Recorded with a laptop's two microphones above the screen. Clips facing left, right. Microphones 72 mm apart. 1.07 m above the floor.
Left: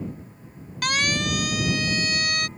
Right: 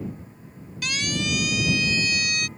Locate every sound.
0.8 s a siren: 55° left (ahead or behind); by 2.5 s 45° left (ahead or behind)